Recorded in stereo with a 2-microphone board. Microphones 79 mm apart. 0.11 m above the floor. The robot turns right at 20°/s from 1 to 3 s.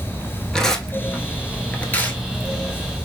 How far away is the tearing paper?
About 0.7 m.